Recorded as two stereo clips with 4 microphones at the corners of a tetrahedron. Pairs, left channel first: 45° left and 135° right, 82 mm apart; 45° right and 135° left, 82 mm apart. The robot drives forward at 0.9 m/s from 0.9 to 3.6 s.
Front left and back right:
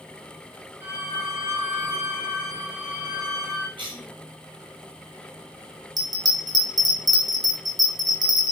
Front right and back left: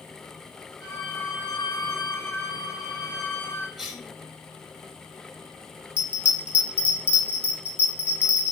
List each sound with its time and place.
0.8 s a violin: 75° right, 4.5 m; by 3.7 s 105° right, 4.5 m
3.8 s a cough: 135° right, 5.5 m
6.0 s a bell: 155° right, 3 m